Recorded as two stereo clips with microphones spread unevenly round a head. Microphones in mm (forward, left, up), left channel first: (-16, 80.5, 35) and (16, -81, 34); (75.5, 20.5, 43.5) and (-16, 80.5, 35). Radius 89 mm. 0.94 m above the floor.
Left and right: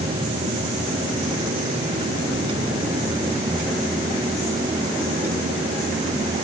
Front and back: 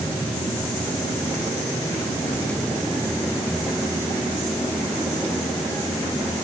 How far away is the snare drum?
I don't hear a snare drum.